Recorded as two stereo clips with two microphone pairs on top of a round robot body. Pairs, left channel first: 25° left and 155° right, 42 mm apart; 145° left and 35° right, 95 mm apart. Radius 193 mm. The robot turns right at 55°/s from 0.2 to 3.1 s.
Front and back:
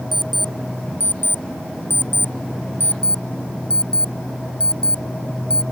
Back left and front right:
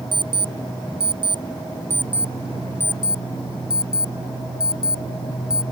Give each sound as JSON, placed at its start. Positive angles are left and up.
{"t": 0.1, "sound": "an alarm clock", "azimuth_deg": -70}